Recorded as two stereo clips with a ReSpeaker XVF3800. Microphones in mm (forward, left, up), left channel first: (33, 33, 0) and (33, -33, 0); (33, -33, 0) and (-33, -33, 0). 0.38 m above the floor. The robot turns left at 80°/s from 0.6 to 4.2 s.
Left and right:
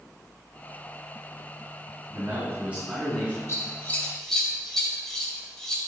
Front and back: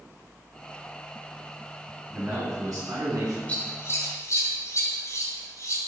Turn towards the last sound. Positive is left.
turn(degrees=5)